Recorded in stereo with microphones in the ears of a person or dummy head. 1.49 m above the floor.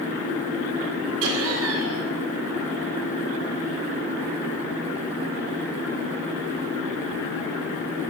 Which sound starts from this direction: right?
Laughter, at 1.2 s.